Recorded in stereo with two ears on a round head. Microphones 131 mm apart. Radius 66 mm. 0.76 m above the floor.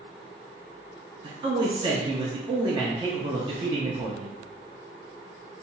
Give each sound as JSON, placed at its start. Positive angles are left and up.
{"t": 1.2, "sound": "a man speaking", "side_deg": -30, "distance_m": 0.6}